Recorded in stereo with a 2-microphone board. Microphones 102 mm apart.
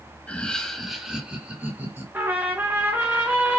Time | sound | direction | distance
0.3 | laughter | 15° left (ahead or behind) | 1.3 m
2.1 | a trumpet | 20° right (ahead or behind) | 1.9 m